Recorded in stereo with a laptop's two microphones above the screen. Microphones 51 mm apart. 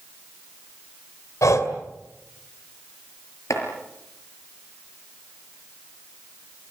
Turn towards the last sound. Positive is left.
turn(degrees=75)  # may be behind; listen again after turning